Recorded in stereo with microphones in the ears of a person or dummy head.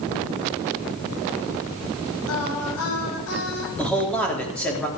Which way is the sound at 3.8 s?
10° left (ahead or behind).